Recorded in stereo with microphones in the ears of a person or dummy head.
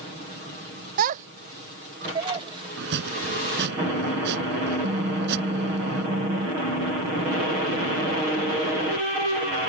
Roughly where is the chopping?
Right.